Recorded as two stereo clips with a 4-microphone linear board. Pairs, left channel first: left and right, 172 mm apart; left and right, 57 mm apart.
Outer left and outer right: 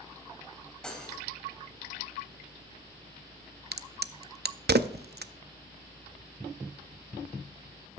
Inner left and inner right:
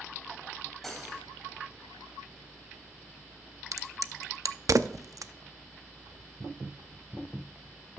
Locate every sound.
0.8 s cutlery clinking: 5° left (ahead or behind), 3 m
3.7 s a crack: 70° right (ahead or behind), 0.5 m